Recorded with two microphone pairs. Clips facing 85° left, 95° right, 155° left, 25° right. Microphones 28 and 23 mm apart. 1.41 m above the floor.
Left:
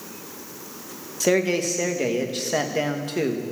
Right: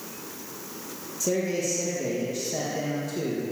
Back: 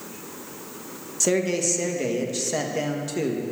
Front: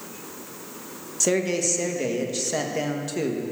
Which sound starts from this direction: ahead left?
A man speaking, at 1.2 s.